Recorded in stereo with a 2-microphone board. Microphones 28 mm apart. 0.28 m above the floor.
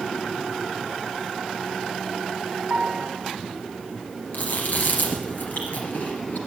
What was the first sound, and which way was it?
A piano, 55° right (ahead or behind).